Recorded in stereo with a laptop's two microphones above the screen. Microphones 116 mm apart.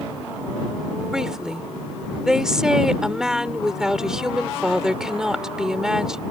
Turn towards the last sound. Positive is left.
turn(degrees=-5)  # may be behind; listen again after turning